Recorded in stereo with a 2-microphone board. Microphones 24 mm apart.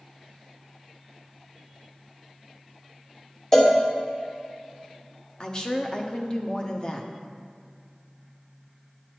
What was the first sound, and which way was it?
A cowbell, 20° left (ahead or behind).